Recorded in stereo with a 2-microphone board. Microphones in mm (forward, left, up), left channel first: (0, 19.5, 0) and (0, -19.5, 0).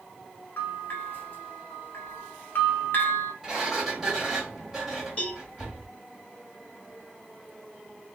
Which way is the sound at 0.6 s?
50° left (ahead or behind).